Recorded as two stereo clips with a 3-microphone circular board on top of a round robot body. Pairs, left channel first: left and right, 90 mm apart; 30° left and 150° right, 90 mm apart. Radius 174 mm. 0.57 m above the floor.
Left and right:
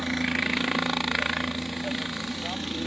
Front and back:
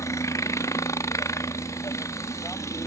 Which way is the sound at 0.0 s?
Straight ahead.